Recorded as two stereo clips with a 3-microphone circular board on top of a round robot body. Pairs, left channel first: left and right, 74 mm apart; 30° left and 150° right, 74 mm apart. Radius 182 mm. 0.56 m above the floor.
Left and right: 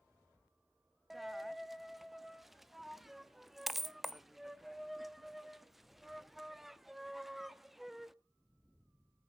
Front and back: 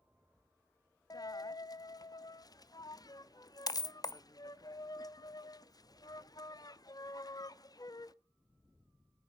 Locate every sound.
1.1 s a dropped coin: 5° right, 0.6 m